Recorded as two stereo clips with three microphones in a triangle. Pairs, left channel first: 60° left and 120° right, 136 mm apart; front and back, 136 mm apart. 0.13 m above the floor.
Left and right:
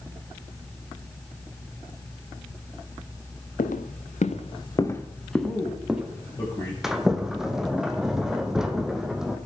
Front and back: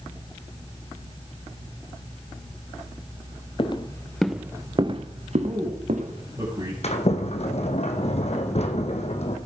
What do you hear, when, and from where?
3.6 s footsteps: 50° left, 1.3 m; by 6.4 s 160° left, 3 m
5.4 s a man speaking: 120° left, 4.5 m
6.8 s a sliding door: 35° right, 1.3 m